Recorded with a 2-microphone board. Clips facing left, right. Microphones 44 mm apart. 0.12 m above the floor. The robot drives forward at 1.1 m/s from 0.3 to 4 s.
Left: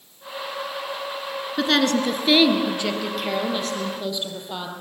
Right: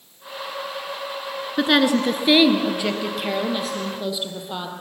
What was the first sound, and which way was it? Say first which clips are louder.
A woman speaking: right 2 dB; 15° right (ahead or behind).